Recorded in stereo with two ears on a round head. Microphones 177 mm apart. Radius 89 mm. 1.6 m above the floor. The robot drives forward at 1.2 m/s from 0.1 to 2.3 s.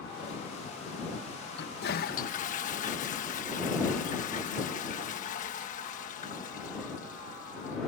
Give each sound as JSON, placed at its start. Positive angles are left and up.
{"t": 1.6, "sound": "a toilet flushing", "side_deg": 55}